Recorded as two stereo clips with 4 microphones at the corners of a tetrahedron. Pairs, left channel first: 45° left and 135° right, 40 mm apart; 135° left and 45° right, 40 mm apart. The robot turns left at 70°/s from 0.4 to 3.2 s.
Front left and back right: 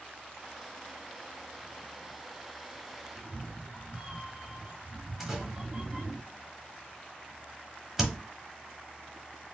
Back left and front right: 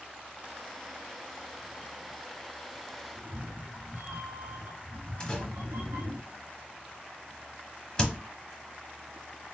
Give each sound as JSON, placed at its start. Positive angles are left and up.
{"t": 3.1, "sound": "a cat meowing", "azimuth_deg": -60, "distance_m": 1.3}
{"t": 5.2, "sound": "a door slam", "azimuth_deg": 160, "distance_m": 1.0}